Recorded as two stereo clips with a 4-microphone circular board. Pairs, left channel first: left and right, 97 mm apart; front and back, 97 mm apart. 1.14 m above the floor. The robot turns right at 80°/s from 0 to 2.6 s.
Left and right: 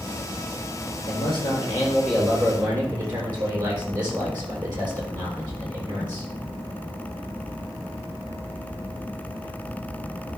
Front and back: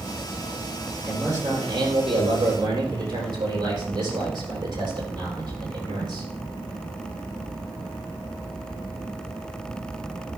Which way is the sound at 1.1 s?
100° left.